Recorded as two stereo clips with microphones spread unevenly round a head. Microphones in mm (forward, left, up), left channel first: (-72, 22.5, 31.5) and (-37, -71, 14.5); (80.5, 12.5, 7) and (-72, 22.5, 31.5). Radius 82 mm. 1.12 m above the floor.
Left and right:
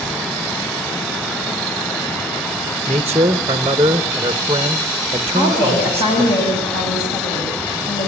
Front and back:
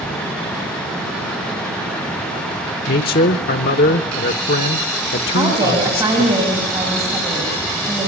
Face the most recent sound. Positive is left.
turn(degrees=105)